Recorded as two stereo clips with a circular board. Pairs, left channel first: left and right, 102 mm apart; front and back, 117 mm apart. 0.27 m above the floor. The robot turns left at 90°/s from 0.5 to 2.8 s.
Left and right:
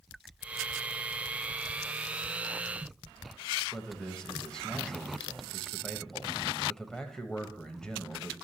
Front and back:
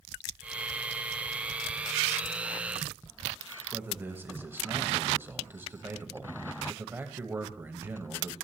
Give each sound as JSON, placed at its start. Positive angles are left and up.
{"t": 3.7, "sound": "a man speaking", "azimuth_deg": 155, "distance_m": 0.9}